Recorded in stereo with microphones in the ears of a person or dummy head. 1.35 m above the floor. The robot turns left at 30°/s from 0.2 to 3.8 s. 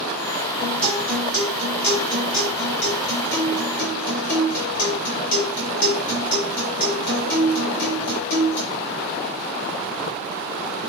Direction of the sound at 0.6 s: Straight behind.